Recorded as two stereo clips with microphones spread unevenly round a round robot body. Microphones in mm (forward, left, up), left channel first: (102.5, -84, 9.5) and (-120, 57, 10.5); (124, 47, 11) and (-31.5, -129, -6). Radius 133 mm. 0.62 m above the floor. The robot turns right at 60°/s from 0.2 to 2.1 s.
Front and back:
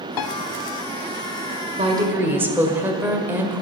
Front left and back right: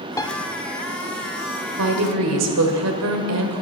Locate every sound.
0.2 s a piano: 30° right, 0.7 m; by 0.4 s 20° right, 0.7 m
1.8 s a woman speaking: 150° right, 1.9 m; by 3.6 s 130° right, 1.9 m